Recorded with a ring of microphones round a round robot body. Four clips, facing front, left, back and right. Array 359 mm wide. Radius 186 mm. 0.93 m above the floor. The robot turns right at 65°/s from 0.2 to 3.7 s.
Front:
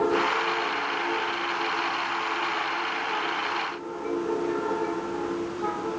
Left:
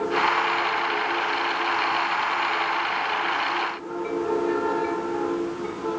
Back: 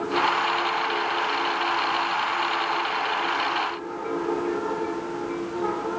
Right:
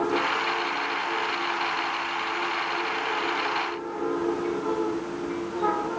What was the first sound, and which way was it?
Only background noise.